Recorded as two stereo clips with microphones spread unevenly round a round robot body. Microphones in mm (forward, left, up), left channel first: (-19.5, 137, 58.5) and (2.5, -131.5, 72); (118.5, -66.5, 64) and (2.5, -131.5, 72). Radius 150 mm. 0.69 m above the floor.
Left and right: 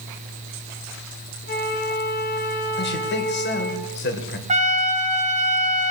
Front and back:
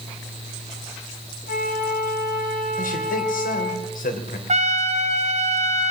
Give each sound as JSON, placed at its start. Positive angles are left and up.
{"t": 1.5, "sound": "a flute", "azimuth_deg": 35, "distance_m": 2.0}
{"t": 2.8, "sound": "a man speaking", "azimuth_deg": 45, "distance_m": 2.5}
{"t": 4.5, "sound": "a trumpet", "azimuth_deg": -145, "distance_m": 1.4}